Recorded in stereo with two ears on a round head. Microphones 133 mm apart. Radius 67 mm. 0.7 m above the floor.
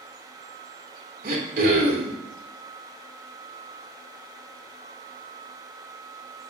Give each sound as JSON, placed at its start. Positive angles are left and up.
{"t": 1.2, "sound": "throat clearing", "side_deg": -60, "distance_m": 2.5}